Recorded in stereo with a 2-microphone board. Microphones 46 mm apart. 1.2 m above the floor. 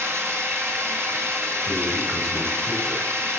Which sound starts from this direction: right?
Running water, at 0.0 s.